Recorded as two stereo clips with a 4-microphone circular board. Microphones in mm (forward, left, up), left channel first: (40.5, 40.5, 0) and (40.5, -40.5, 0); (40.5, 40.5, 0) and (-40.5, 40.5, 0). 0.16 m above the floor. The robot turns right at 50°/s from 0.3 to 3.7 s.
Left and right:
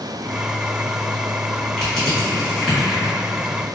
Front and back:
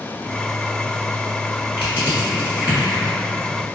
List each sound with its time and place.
1.8 s crushing: 150° left, 1.4 m; by 3.1 s 140° right, 1.4 m